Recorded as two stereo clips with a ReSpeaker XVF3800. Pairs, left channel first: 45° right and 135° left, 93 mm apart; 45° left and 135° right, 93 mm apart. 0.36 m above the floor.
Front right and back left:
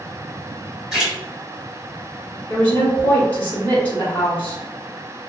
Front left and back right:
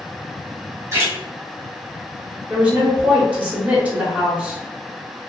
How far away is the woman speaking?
About 1.0 m.